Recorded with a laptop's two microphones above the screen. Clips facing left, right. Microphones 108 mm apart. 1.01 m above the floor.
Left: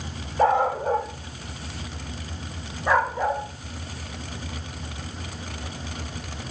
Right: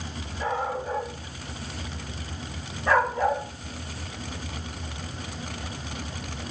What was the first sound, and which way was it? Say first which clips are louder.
A dog barking: left 9 dB; 70° left (ahead or behind).